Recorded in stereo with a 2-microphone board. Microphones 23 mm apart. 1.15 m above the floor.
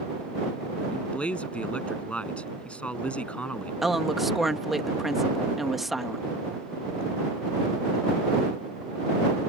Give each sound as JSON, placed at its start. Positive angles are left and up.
{"t": 0.9, "sound": "a man speaking", "side_deg": 60}
{"t": 3.8, "sound": "a woman speaking", "side_deg": -10}